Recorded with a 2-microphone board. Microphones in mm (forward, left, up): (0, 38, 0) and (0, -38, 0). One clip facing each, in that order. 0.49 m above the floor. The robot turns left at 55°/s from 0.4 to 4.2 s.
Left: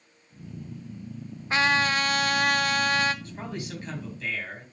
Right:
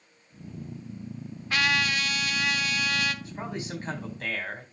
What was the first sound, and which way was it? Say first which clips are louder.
A trumpet: left 3 dB; 145° left.